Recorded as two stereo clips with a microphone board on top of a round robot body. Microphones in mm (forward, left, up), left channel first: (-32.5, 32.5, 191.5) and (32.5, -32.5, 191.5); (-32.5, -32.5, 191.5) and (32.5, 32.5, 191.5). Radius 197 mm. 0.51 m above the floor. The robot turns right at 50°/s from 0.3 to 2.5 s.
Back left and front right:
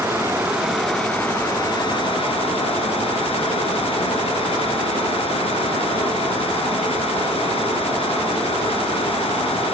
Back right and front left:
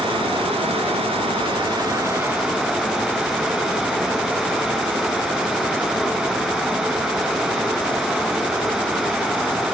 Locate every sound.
0.0 s running water: 10° left, 4 m; by 9.7 s 120° left, 4 m